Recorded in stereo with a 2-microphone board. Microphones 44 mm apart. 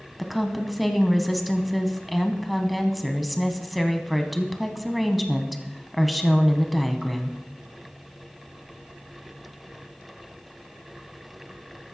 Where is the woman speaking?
Centre (ahead or behind), 1.0 m.